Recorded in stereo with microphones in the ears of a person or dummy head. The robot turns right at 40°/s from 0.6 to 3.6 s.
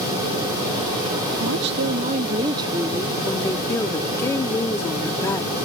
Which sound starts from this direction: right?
A woman speaking, at 1.4 s.